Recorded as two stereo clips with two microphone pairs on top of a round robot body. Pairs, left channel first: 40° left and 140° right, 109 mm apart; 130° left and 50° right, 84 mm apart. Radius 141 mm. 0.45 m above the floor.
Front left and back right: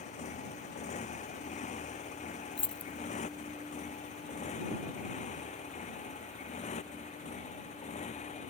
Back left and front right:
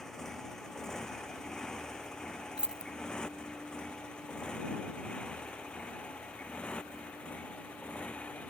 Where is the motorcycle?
45° left; by 8.5 s 55° left.